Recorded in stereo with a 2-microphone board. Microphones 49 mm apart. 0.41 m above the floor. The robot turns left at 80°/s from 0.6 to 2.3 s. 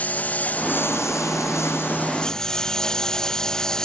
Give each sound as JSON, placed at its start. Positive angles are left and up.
{"t": 0.0, "sound": "a lawn mower", "azimuth_deg": 150}